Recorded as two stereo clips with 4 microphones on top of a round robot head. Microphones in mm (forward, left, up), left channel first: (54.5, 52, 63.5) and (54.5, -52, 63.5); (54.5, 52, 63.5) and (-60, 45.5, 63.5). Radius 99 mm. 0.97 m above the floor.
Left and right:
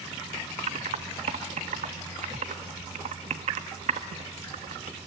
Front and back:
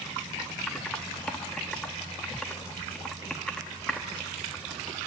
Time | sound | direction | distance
0.7 | typing on a keyboard | 85° right | 0.9 m